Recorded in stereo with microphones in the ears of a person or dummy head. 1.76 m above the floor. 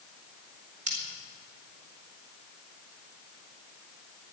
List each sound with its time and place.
0.9 s scissors: 40° right (ahead or behind), 5.5 m